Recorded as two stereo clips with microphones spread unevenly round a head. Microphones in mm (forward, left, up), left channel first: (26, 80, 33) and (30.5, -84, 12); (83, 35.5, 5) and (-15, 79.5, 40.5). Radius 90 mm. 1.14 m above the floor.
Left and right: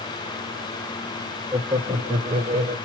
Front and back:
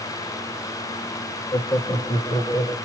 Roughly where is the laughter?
Ahead.